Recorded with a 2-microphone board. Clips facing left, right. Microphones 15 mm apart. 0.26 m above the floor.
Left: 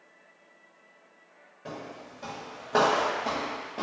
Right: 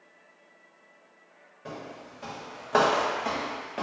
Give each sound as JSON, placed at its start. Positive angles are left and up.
{"t": 1.6, "sound": "footsteps", "side_deg": -5, "distance_m": 1.1}